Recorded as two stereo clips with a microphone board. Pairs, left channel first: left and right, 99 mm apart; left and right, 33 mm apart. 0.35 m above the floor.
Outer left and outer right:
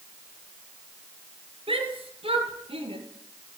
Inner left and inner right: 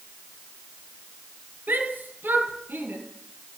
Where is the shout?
65° right (ahead or behind), 8.5 m; by 3.0 s 70° right (ahead or behind), 10 m.